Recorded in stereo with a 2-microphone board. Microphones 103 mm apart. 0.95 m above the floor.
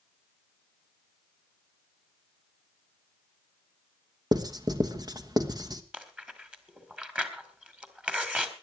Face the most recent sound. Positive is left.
turn(degrees=-10)  # may be behind; listen again after turning